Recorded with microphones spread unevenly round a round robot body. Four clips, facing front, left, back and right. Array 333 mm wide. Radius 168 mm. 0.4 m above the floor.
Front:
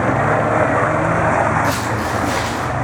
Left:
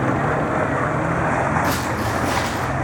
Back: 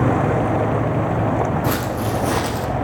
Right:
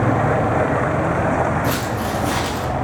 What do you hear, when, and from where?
1.6 s footsteps: 175° right, 2 m; by 2.7 s 175° left, 1.1 m